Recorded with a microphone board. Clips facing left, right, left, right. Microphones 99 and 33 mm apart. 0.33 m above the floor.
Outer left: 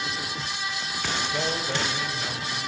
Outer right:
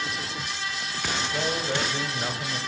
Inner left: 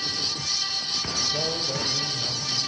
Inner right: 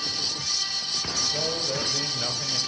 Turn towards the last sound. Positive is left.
turn(degrees=-45)  # may be behind; listen again after turning